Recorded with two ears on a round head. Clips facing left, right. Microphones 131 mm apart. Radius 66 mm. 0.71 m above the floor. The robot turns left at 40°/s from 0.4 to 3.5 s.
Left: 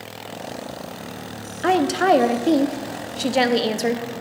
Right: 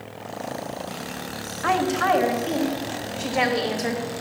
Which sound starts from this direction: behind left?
A woman speaking, at 1.6 s.